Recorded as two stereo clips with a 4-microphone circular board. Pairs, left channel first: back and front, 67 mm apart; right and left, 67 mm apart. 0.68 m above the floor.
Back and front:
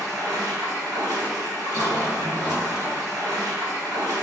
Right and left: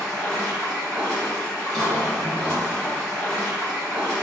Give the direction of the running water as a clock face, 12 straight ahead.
12 o'clock.